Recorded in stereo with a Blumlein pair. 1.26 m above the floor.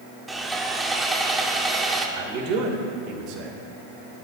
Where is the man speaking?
40° right, 3.5 m.